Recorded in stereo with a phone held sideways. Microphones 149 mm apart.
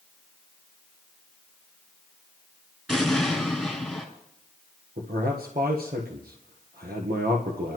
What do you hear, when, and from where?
2.9 s an explosion: centre (ahead or behind), 3 m
5.0 s a man speaking: 90° right, 1.3 m